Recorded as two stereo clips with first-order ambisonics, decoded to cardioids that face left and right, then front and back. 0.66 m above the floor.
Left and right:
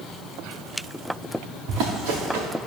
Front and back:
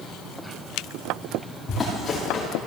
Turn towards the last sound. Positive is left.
turn(degrees=-75)